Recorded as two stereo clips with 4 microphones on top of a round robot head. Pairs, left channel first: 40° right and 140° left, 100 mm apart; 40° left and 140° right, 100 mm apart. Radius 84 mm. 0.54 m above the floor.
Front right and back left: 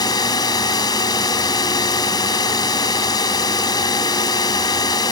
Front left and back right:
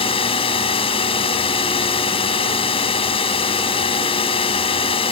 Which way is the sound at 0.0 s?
10° left.